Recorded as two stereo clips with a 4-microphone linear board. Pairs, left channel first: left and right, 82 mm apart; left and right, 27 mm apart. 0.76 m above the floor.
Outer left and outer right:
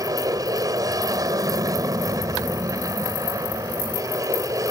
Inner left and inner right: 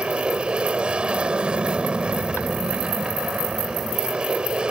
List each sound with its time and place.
0.0 s an aircraft: 45° right (ahead or behind)